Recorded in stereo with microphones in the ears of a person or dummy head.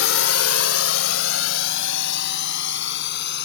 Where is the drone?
70° left (ahead or behind); by 3.5 s 65° left (ahead or behind).